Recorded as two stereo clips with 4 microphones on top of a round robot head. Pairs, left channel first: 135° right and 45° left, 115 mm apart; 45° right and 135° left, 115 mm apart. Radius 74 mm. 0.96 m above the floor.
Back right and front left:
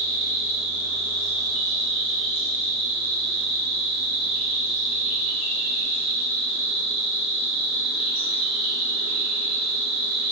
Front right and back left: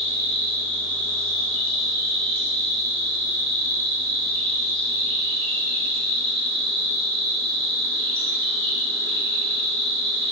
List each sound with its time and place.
0.0 s an insect: 120° right, 0.9 m